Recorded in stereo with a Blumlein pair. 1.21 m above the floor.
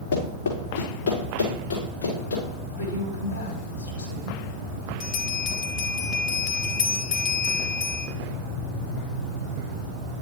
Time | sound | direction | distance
0.1 | running footsteps | 55° left | 4 m
2.7 | a woman speaking | 60° left | 4 m
5.0 | a bell | 40° left | 1.2 m